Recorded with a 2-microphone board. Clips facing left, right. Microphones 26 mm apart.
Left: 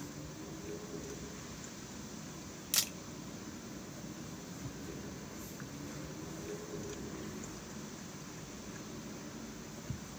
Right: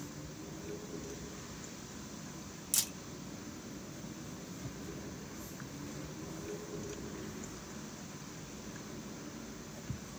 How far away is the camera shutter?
About 0.8 m.